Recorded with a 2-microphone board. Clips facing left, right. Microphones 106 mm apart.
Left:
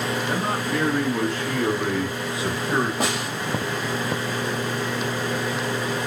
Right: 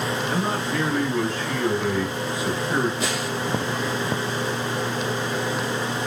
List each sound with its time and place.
0.3 s a man speaking: 55° left (ahead or behind), 1.9 m; by 2.9 s 75° left (ahead or behind), 1.4 m
3.0 s a snare drum: 60° left (ahead or behind), 2.5 m